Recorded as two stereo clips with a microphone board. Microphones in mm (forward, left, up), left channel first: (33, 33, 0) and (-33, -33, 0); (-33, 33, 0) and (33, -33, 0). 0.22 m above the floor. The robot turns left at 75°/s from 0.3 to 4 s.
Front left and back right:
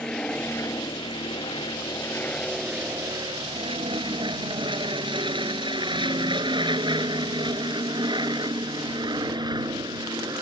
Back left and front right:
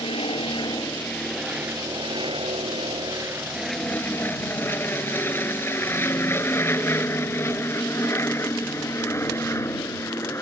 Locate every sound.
0.0 s an aircraft: 125° left; by 10.4 s 170° right